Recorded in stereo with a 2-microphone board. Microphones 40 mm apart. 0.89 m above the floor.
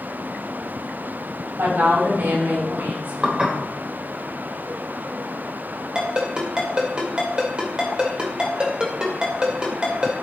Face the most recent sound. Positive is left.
turn(degrees=-20)  # may be behind; listen again after turning